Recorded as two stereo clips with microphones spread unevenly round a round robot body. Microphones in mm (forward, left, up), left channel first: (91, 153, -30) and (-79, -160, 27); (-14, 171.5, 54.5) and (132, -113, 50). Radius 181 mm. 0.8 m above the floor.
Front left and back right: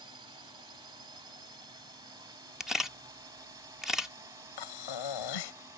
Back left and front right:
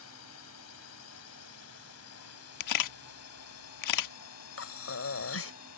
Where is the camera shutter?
150° left.